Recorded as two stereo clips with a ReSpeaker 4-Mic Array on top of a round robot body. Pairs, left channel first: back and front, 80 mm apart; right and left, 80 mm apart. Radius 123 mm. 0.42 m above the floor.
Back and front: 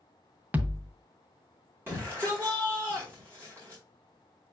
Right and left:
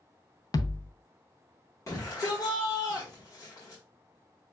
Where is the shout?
55° right, 1.6 m.